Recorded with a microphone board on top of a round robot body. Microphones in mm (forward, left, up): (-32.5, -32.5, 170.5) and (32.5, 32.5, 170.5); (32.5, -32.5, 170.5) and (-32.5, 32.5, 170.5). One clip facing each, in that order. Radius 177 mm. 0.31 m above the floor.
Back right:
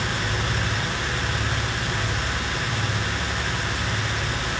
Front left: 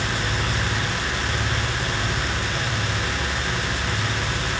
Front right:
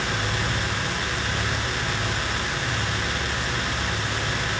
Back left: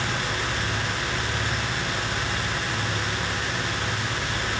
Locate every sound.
Only background noise.